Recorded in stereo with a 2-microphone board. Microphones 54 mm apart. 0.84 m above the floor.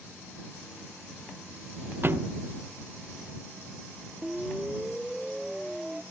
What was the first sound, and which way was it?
A thud, 40° right (ahead or behind).